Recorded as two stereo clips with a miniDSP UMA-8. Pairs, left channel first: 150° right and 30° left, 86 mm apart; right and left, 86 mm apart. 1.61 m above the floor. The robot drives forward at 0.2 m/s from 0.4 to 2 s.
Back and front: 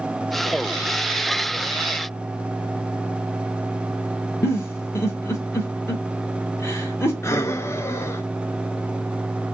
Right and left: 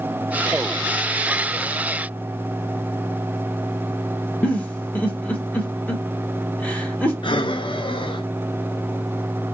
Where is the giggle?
145° right, 0.9 m.